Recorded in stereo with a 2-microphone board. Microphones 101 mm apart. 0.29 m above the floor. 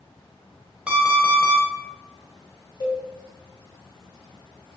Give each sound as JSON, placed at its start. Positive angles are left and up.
{"t": 0.9, "sound": "an alarm clock", "side_deg": -10, "distance_m": 0.7}
{"t": 2.8, "sound": "a cowbell", "side_deg": 40, "distance_m": 1.4}